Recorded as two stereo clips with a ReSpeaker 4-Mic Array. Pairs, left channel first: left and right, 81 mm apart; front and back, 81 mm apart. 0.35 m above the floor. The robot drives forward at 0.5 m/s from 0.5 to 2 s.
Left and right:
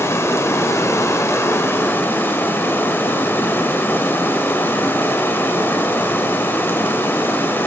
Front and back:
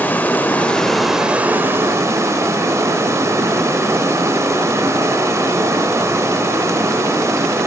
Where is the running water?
55° left, 0.7 m; by 7.7 s 145° left, 0.8 m.